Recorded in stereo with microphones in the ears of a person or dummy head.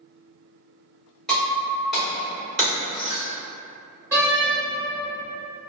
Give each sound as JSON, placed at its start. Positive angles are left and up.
{"t": 1.3, "sound": "breaking glass", "side_deg": -5, "distance_m": 1.9}
{"t": 4.1, "sound": "a door slam", "side_deg": -10, "distance_m": 0.9}